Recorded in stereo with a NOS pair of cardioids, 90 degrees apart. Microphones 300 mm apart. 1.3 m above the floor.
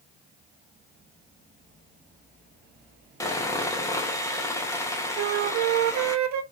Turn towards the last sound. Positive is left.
turn(degrees=-70)